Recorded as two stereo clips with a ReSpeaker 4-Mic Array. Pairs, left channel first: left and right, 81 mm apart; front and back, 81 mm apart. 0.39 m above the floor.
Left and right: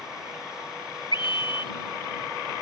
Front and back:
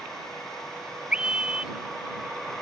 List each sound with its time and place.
1.1 s a scream: 100° left